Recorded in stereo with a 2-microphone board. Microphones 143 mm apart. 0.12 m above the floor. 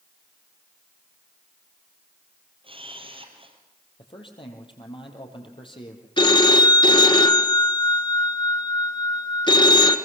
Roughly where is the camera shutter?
Right.